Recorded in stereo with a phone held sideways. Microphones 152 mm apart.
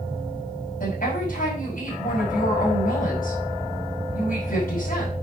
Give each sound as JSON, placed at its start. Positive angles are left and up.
{"t": 0.8, "sound": "a woman speaking", "side_deg": 70, "distance_m": 5.0}